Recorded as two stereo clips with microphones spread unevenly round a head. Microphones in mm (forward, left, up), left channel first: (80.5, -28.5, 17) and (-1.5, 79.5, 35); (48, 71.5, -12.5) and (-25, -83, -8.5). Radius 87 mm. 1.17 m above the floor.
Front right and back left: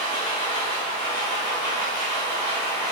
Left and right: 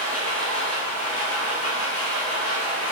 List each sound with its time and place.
0.0 s a machine running: 5° left, 1.8 m